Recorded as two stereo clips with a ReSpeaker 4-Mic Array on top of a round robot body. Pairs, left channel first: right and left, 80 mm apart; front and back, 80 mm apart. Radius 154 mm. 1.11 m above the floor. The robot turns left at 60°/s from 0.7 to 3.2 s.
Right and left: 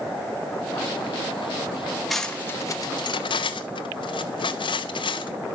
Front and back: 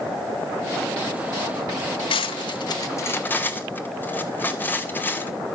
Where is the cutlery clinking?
Straight ahead, 0.9 m; by 5.3 s 70° right, 0.9 m.